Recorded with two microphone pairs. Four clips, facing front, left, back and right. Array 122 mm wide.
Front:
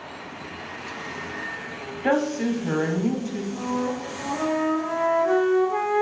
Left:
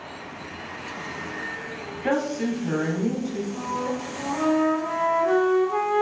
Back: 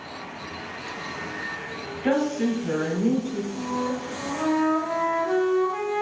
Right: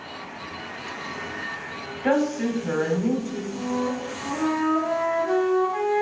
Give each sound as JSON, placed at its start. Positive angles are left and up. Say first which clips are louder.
{"t": 2.0, "sound": "a woman speaking", "louder": "right 2 dB, even", "azimuth_deg": -25, "distance_m": 1.4}
{"t": 3.5, "sound": "a flute", "louder": "right 1 dB, front 3 dB", "azimuth_deg": 60, "distance_m": 1.9}